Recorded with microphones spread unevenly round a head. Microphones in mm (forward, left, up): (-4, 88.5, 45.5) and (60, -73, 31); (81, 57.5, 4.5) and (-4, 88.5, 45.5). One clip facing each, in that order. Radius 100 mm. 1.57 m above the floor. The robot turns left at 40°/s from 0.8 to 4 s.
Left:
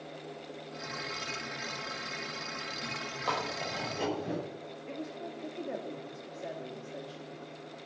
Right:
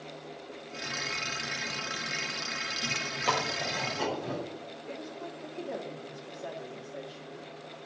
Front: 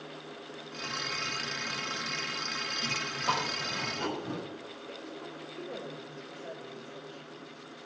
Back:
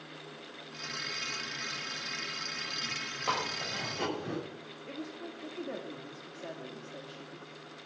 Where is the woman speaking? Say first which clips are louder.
Left 1 dB, back 3 dB; 170° right, 3.5 m.